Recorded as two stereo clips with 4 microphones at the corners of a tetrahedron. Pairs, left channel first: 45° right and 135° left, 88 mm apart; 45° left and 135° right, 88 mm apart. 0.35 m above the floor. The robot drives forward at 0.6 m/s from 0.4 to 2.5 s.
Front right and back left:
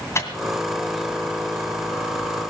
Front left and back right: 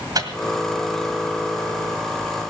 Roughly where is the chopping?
No chopping in this recording.